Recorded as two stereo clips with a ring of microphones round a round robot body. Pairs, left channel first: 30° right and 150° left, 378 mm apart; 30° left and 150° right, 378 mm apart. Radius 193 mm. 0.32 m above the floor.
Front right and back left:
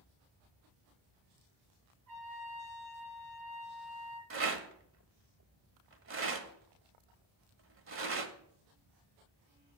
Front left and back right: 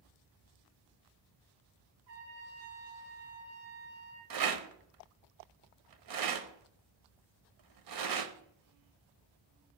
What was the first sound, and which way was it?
A trumpet, 160° right.